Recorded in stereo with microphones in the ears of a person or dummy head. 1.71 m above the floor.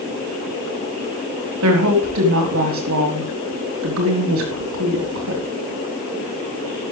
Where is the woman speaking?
85° right, 3.5 m.